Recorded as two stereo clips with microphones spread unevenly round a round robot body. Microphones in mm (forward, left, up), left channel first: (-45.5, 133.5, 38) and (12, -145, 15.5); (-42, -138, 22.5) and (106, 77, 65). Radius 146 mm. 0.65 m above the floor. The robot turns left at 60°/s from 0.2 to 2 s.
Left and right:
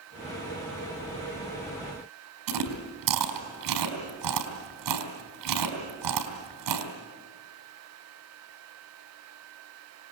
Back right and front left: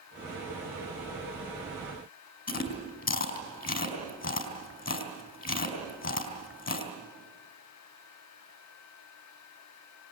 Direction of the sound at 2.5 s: 70° right.